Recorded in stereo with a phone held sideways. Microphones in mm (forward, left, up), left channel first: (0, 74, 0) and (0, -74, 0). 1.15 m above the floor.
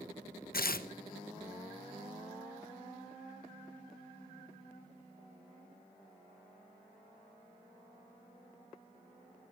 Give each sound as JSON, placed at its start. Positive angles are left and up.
{"t": 0.5, "sound": "tearing paper", "side_deg": 80, "distance_m": 0.7}